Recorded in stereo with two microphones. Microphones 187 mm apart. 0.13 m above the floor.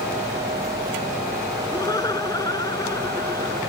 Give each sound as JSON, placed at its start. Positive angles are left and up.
{"t": 1.7, "sound": "laughter", "side_deg": 20}